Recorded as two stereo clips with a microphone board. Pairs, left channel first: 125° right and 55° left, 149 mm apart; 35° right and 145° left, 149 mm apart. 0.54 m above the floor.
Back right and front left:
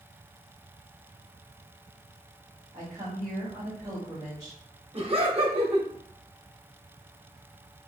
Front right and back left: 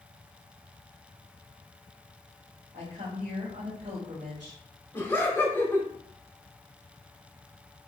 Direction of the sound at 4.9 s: 35° left.